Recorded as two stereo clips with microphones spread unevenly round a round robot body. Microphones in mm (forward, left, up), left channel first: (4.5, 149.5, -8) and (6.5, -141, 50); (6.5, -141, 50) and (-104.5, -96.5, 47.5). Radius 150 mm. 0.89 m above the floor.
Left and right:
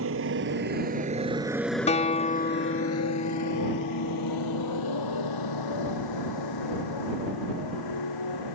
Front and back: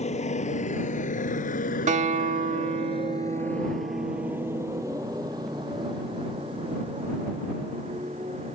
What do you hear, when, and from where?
0.0 s a motorcycle: 45° right; by 8.6 s 95° left
1.9 s a guitar: 165° left